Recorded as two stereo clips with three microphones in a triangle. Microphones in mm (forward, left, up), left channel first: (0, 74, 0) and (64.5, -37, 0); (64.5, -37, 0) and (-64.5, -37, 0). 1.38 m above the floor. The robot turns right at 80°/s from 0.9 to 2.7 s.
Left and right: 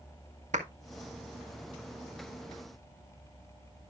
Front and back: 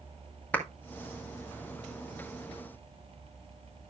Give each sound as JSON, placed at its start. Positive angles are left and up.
{"t": 0.5, "sound": "a clap", "azimuth_deg": -80, "distance_m": 1.6}